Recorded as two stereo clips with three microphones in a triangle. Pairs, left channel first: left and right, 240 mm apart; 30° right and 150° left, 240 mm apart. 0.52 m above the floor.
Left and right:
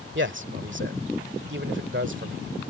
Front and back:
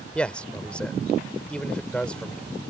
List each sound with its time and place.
0.1 s a man speaking: 115° right